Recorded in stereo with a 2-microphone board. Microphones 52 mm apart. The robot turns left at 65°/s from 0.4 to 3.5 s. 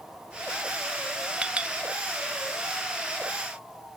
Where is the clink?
20° right (ahead or behind), 0.6 m; by 1.8 s 25° right (ahead or behind), 0.6 m.